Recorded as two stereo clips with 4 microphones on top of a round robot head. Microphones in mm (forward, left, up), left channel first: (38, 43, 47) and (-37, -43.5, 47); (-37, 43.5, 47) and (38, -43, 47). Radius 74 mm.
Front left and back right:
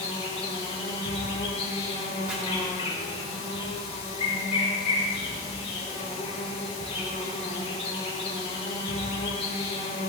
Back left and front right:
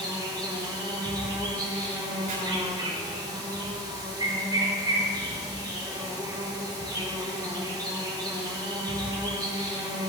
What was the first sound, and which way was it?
An insect, 10° left.